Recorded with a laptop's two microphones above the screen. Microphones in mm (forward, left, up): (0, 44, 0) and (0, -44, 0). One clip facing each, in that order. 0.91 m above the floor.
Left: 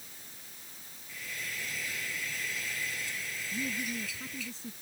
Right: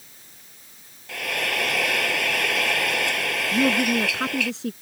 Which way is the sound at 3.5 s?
75° right (ahead or behind).